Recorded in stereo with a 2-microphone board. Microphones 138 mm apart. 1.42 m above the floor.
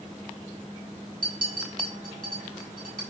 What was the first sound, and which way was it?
A clink, 85° right.